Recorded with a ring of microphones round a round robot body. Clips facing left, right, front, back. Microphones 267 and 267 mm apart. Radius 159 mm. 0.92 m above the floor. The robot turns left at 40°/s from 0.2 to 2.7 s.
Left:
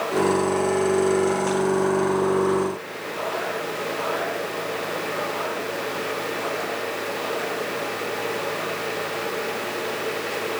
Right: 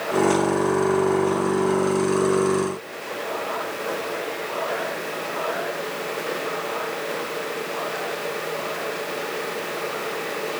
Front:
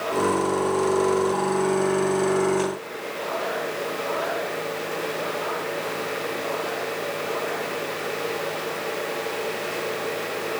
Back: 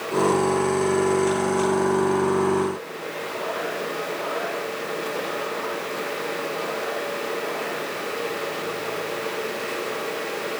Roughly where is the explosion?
No explosion in this recording.